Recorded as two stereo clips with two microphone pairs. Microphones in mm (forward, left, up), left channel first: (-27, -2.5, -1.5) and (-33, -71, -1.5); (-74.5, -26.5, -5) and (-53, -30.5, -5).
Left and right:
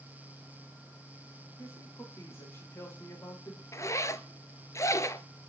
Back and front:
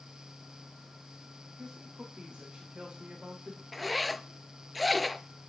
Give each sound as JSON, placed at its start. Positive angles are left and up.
{"t": 1.6, "sound": "a man speaking", "azimuth_deg": 35, "distance_m": 8.0}
{"t": 3.7, "sound": "a zipper", "azimuth_deg": 85, "distance_m": 0.7}